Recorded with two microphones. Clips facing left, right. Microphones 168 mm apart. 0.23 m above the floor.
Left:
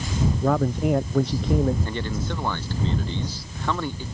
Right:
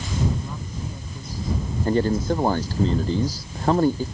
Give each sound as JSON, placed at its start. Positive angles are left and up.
{"t": 0.4, "sound": "a man speaking", "side_deg": 80}
{"t": 1.9, "sound": "a man speaking", "side_deg": -40}